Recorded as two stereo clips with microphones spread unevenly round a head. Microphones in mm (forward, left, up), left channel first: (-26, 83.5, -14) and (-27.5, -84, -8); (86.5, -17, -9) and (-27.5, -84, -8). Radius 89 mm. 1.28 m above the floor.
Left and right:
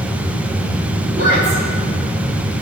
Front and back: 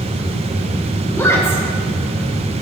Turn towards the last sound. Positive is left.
turn(degrees=-40)